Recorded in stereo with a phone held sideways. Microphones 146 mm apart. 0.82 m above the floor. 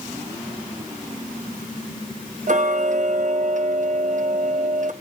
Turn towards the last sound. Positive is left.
turn(degrees=-60)  # may be behind; listen again after turning